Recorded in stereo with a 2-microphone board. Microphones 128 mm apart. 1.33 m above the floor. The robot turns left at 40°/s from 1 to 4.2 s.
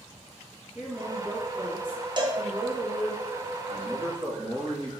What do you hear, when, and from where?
0.8 s a woman speaking: 10° right, 1.9 m; by 3.2 s 95° right, 1.9 m
2.2 s a cowbell: 35° right (ahead or behind), 0.6 m; by 2.4 s 30° right (ahead or behind), 0.6 m
3.7 s a man speaking: 55° right (ahead or behind), 1.6 m; by 4.9 s 35° right (ahead or behind), 1.6 m